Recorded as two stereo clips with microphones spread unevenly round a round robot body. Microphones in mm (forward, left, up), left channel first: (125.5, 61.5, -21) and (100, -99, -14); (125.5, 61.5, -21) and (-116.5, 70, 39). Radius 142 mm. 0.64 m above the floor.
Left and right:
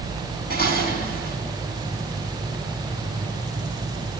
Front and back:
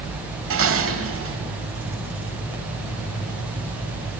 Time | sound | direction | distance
0.5 | dishes clattering | 145° left | 2.5 m